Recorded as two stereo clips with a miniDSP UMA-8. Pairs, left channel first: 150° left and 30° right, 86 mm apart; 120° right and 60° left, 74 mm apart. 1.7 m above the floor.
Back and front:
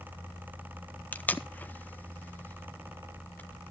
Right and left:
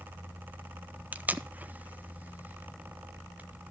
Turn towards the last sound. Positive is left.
turn(degrees=100)